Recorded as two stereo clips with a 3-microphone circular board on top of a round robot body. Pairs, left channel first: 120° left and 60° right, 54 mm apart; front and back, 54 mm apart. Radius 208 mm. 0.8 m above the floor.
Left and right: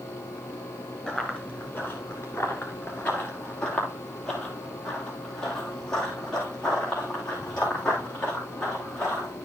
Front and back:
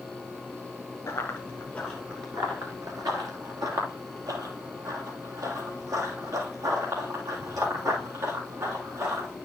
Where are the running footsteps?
35° left, 0.9 m; by 9.3 s 160° right, 5 m.